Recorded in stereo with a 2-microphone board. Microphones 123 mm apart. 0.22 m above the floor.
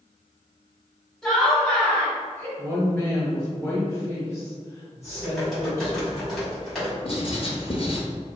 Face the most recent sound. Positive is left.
turn(degrees=50)  # may be behind; listen again after turning